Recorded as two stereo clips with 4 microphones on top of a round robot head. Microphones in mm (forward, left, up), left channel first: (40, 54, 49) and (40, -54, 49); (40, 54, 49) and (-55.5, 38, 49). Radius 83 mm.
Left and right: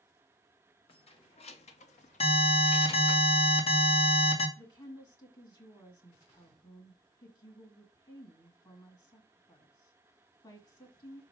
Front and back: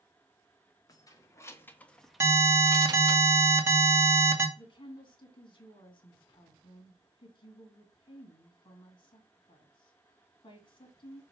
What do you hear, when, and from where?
0.9 s keys jangling: 60° left, 1.4 m; by 3.2 s 160° left, 0.9 m
2.2 s an alarm: 125° left, 2 m
4.6 s a woman speaking: 45° left, 1.9 m